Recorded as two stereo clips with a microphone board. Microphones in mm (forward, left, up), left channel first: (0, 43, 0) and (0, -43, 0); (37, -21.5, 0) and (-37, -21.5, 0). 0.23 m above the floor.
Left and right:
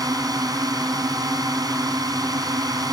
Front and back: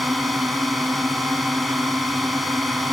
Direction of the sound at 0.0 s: 90° right.